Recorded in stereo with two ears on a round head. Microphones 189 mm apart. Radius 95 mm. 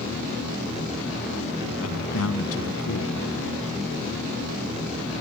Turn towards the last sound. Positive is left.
turn(degrees=80)